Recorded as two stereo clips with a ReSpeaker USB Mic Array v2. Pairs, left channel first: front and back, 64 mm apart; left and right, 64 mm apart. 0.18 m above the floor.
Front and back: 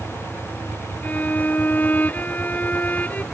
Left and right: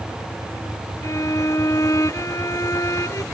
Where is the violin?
60° left.